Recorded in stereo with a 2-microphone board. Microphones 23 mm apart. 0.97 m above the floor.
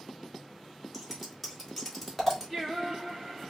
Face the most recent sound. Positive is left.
turn(degrees=5)  # may be behind; listen again after turning